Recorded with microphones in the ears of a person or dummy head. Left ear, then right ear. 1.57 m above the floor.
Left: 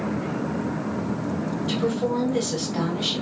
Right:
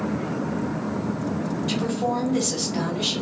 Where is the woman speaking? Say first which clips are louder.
Left 1 dB; 25° right (ahead or behind), 1.7 m.